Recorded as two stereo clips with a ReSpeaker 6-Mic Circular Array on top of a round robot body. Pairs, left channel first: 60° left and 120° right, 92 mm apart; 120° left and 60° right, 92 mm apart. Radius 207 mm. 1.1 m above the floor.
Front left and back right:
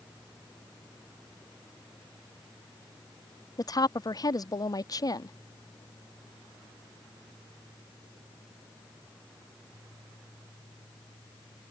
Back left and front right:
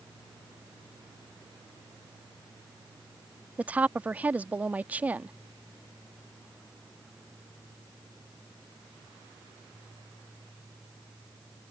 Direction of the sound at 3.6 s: 15° left.